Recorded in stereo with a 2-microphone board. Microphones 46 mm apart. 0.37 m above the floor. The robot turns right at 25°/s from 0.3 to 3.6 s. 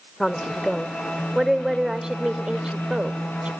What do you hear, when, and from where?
0.2 s a woman speaking: 10° left (ahead or behind), 1.0 m; by 3.5 s 25° right (ahead or behind), 1.0 m